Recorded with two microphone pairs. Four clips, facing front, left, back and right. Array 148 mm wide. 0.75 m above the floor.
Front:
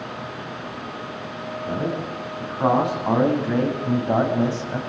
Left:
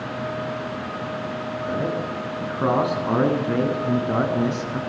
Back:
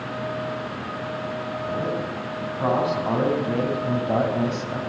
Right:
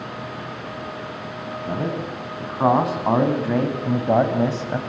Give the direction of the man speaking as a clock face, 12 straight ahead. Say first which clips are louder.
Even, front 2 dB; 3 o'clock.